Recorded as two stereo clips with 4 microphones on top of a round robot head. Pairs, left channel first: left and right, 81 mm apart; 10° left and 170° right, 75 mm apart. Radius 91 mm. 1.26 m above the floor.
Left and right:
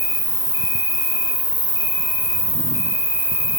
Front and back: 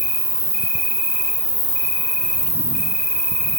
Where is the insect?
60° left, 1.5 m.